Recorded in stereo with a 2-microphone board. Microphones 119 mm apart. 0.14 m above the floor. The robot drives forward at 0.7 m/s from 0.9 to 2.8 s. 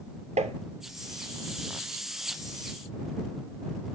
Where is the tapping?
70° right (ahead or behind), 0.6 m.